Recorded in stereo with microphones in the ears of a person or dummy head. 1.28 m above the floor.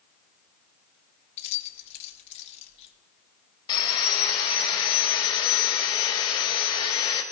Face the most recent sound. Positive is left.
turn(degrees=20)  # may be behind; listen again after turning